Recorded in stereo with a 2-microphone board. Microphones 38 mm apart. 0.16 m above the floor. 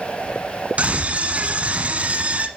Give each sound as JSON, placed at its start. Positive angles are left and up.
{"t": 0.8, "sound": "a scream", "side_deg": -35, "distance_m": 1.4}